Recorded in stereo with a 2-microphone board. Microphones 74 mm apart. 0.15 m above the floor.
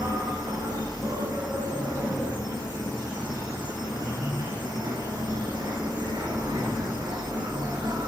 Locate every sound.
0.0 s an insect: 70° right (ahead or behind), 10 m